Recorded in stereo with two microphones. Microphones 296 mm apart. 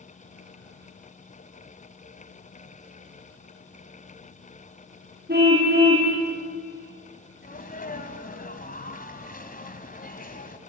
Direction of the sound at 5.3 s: 35° right (ahead or behind).